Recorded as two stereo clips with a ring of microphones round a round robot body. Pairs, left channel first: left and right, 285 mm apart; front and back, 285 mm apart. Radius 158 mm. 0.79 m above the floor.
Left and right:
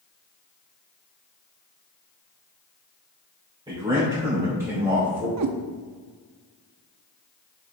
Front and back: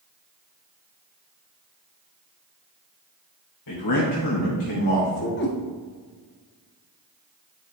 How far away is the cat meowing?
About 0.7 m.